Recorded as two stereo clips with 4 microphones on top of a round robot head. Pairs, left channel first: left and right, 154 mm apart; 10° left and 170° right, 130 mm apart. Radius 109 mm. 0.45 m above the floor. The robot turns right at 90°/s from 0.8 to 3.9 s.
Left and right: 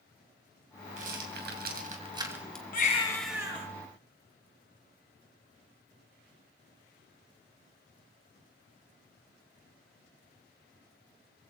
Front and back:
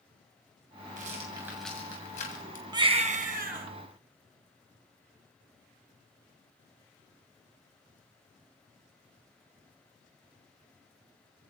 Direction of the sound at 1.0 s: 140° right.